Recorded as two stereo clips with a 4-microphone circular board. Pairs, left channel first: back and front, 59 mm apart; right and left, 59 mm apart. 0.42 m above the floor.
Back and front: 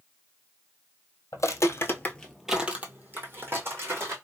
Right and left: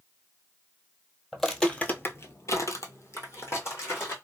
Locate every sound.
1.3 s footsteps: straight behind, 0.9 m; by 4.2 s 40° right, 2.0 m